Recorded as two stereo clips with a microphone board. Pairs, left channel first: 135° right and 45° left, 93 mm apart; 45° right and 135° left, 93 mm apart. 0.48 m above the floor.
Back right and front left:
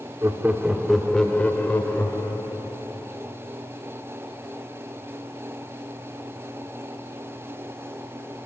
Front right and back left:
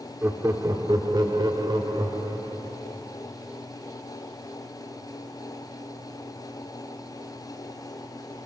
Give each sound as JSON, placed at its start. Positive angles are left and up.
{"t": 0.2, "sound": "laughter", "azimuth_deg": 85, "distance_m": 0.8}